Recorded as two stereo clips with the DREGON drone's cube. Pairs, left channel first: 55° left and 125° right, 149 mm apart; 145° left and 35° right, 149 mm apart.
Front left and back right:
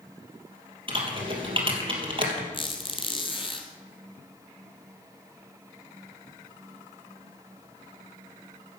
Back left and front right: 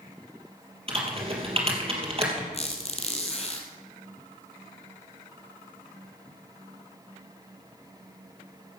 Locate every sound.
0.9 s typing on a keyboard: 75° right, 3 m
2.5 s a squeak: 105° left, 1.9 m